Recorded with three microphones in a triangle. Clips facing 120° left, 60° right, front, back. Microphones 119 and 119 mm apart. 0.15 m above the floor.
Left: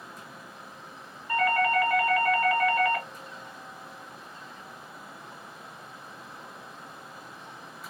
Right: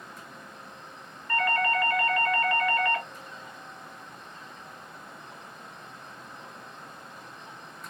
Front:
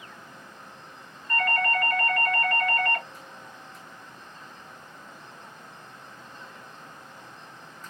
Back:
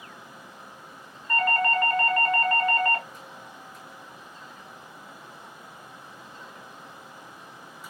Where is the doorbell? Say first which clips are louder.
Left 2 dB, back 2 dB; 175° right, 1.7 m.